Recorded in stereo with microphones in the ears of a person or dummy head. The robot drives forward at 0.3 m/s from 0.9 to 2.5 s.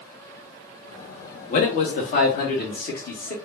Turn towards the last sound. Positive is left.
turn(degrees=50)  # may be behind; listen again after turning